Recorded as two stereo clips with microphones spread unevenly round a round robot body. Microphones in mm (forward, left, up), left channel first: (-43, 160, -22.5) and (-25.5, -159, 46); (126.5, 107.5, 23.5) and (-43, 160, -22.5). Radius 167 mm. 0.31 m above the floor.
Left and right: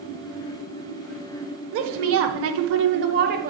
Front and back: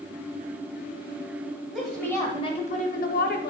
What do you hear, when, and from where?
1.7 s a woman speaking: 130° right, 1.1 m; by 3.5 s 20° right, 1.1 m